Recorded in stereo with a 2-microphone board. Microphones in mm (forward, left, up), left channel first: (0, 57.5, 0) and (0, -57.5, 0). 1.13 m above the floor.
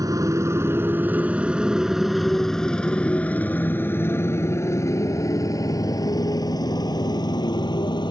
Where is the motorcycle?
35° right (ahead or behind); by 8.1 s 40° left (ahead or behind).